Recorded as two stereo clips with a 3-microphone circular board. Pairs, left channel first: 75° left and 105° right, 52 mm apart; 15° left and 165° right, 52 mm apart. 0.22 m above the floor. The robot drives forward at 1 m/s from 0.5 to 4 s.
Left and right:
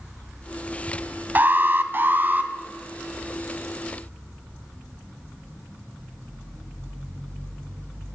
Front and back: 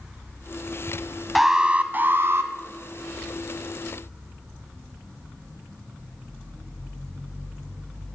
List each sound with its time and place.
1.4 s an alarm: 80° right, 0.9 m; by 2.5 s 150° right, 1.4 m